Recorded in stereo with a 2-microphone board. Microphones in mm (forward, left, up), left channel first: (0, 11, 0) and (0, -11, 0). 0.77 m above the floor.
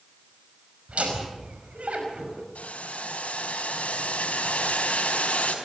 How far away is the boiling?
About 4.5 m.